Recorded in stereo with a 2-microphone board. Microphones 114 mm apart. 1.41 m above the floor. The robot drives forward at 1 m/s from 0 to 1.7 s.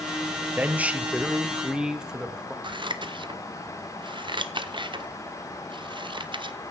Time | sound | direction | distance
0.6 | a man speaking | 15° right (ahead or behind) | 1.0 m
2.6 | scissors | 45° right (ahead or behind) | 0.9 m